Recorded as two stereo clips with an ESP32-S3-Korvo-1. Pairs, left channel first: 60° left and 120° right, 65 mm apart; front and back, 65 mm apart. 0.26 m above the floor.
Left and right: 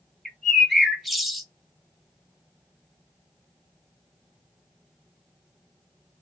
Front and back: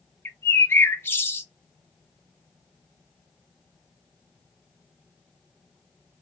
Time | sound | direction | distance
0.2 | a bird | 30° right | 0.6 m